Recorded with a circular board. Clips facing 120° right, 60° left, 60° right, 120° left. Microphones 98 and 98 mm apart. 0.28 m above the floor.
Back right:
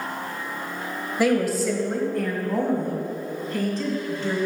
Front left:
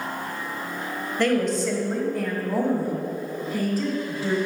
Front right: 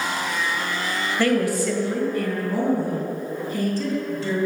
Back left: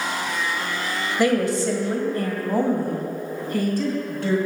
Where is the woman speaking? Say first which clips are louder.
Back right 1 dB, back left 1 dB; 170° left, 1.4 m; by 4.4 s 140° left, 3.5 m.